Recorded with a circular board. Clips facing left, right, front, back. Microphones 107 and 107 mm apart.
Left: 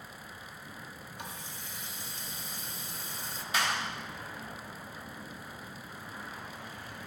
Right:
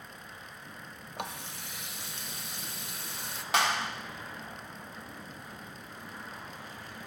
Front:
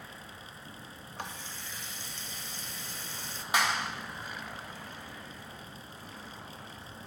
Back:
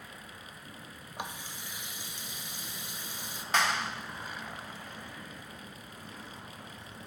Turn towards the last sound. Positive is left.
turn(degrees=-80)